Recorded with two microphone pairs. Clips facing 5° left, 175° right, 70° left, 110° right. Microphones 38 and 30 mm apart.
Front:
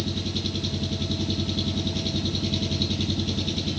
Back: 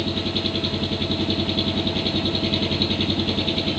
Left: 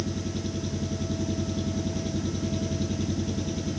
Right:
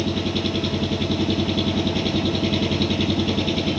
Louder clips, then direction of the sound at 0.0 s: Back 5 dB, right 9 dB; 125° right.